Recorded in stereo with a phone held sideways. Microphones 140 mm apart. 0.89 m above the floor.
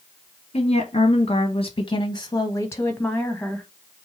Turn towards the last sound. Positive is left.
turn(degrees=5)  # may be behind; listen again after turning